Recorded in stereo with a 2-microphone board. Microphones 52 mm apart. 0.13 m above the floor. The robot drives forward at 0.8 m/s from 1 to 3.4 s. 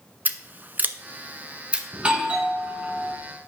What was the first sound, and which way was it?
Scissors, 35° right (ahead or behind).